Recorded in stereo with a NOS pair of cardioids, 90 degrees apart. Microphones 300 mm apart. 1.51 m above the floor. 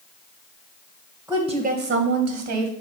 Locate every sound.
1.3 s a woman speaking: 5° right, 1.2 m; by 2.7 s 75° right, 1.7 m